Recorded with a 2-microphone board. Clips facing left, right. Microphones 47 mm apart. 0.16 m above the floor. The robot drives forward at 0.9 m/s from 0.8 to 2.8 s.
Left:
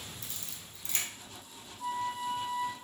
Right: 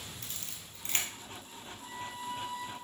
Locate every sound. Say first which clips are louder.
0.2 s a camera shutter: even; 50° right (ahead or behind), 1.9 m; by 1.1 s 45° right (ahead or behind), 2 m
1.8 s a flute: left 8 dB; 45° left (ahead or behind), 1.1 m; by 2.7 s 30° left (ahead or behind), 1.4 m